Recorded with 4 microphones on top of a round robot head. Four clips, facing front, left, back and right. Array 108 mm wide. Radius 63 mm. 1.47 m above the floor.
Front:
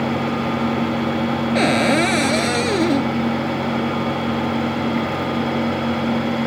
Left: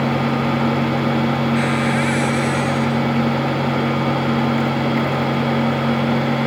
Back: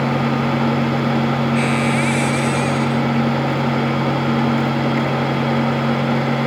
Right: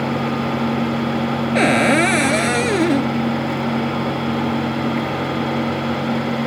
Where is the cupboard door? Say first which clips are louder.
Right 4 dB, front 2 dB; 60° right.